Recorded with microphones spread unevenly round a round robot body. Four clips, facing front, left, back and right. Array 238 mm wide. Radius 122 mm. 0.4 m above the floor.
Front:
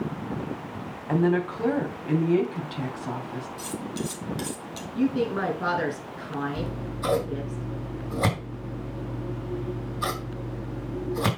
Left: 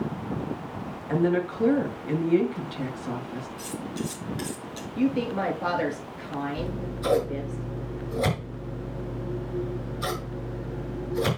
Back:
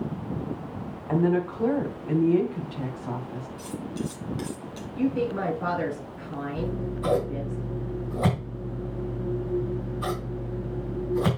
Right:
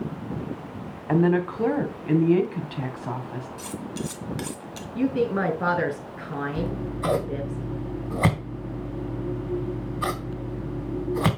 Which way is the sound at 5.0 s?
55° right.